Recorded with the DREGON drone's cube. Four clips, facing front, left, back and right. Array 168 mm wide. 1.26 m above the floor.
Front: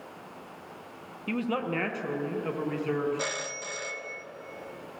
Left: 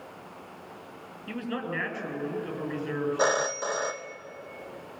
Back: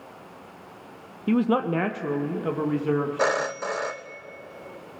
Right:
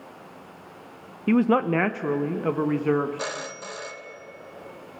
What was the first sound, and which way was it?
A man speaking, 120° right.